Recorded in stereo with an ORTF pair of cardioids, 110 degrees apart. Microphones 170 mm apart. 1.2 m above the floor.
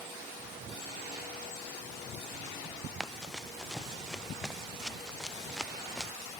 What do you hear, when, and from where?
3.0 s running footsteps: straight ahead